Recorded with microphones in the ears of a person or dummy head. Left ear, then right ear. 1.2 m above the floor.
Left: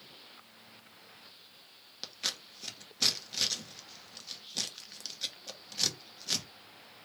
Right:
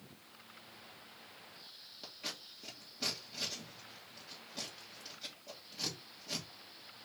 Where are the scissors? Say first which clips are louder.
Left 8 dB; 45° left (ahead or behind), 1.0 m.